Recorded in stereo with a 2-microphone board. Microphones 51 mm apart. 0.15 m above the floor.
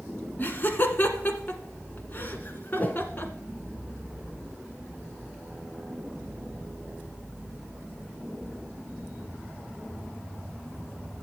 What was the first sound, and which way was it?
Laughter, 40° left (ahead or behind).